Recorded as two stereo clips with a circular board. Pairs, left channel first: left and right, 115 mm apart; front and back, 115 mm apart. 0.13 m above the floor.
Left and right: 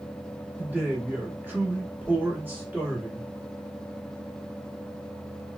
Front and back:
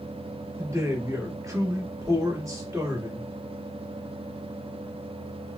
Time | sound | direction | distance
0.6 | a man speaking | 150° right | 1.4 m